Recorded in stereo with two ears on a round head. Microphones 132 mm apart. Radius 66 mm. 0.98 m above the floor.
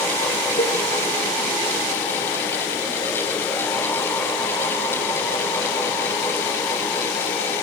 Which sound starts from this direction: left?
A cowbell, at 0.6 s.